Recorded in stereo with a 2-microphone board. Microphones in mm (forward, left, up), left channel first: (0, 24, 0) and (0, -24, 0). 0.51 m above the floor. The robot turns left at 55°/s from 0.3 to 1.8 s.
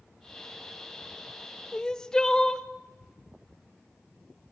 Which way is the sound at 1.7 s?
20° left (ahead or behind).